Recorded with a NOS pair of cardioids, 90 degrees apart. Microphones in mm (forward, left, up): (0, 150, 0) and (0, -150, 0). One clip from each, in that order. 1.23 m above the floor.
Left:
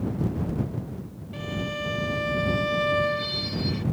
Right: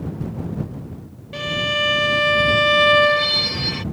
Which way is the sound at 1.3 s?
60° right.